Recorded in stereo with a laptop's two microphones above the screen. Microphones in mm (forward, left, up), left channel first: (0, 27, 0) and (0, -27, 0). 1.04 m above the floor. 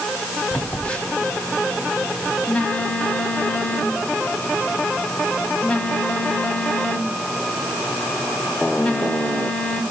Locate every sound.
0.5 s a phone buzzing: 20° left (ahead or behind), 1.7 m